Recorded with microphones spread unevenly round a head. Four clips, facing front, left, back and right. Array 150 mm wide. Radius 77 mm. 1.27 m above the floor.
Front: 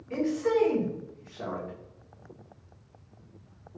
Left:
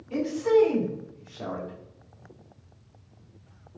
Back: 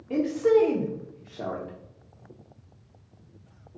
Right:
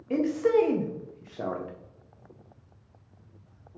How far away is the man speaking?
About 0.7 m.